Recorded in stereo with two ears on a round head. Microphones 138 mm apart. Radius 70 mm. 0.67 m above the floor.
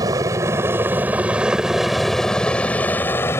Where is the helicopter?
20° right (ahead or behind); by 3.4 s 15° left (ahead or behind).